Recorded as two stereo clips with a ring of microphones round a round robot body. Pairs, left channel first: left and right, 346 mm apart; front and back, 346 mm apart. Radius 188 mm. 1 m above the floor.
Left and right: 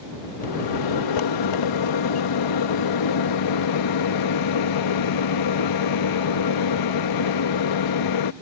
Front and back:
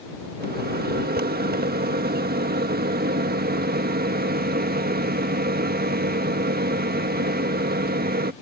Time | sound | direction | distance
0.4 | a microwave | 115° left | ?